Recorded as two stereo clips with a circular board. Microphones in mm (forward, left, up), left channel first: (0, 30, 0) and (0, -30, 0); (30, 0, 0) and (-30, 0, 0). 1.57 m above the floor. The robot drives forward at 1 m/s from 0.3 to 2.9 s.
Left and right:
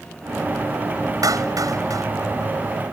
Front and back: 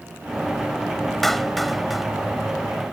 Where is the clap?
85° right; by 2.1 s 95° right.